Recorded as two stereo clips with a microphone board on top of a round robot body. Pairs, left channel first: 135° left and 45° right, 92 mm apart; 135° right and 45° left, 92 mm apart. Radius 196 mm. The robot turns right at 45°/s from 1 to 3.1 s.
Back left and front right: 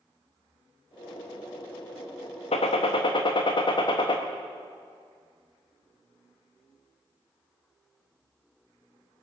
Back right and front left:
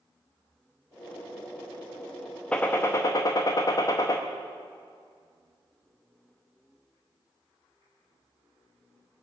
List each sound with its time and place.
2.5 s a gunshot: 145° left, 0.5 m; by 4.2 s 175° left, 0.5 m